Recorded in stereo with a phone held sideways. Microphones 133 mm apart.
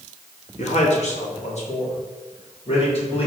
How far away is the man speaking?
About 1.0 m.